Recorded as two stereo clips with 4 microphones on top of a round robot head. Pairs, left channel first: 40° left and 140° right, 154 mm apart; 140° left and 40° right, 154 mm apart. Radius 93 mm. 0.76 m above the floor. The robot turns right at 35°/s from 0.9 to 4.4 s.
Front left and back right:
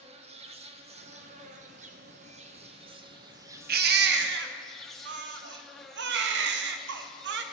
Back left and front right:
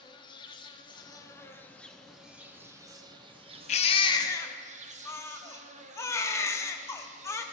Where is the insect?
170° right, 0.8 m; by 7.5 s 50° right, 0.8 m.